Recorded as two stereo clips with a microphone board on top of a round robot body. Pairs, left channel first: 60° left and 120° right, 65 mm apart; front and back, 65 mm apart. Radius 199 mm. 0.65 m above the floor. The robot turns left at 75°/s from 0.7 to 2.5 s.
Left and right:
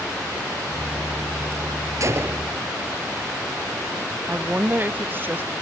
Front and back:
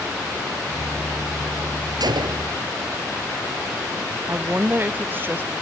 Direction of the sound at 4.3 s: 150° right.